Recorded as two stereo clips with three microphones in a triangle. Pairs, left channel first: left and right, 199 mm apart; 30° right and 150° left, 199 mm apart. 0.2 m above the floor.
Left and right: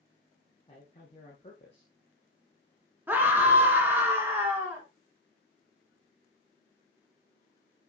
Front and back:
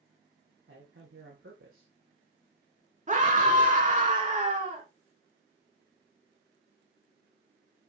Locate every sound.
0.7 s a man speaking: 150° left, 6.5 m
3.1 s a scream: 170° right, 2.5 m